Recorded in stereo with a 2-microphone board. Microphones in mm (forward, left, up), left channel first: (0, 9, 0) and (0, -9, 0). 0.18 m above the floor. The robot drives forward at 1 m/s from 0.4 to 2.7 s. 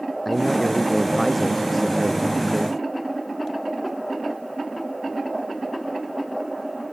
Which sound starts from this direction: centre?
A man speaking, at 0.2 s.